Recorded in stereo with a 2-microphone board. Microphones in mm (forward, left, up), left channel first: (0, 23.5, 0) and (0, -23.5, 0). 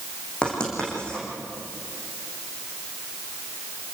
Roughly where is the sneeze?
I don't hear a sneeze.